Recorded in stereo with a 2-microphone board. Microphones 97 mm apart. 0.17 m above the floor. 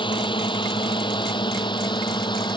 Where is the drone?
55° left (ahead or behind); by 2.6 s 50° left (ahead or behind).